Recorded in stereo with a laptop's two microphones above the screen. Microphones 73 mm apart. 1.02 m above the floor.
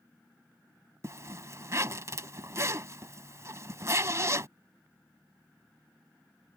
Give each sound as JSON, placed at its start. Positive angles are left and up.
{"t": 1.0, "sound": "a zipper", "side_deg": -40}